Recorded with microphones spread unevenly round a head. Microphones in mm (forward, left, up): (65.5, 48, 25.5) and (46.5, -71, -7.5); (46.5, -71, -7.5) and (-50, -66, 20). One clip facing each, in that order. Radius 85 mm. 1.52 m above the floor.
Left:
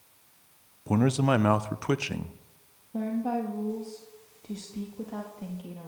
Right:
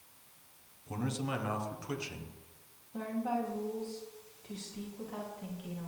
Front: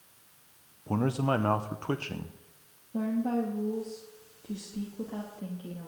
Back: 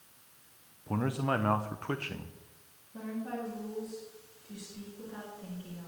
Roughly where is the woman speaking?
Ahead left.